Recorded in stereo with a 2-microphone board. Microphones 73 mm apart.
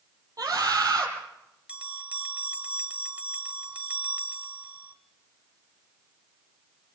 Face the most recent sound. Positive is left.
turn(degrees=-20)  # may be behind; listen again after turning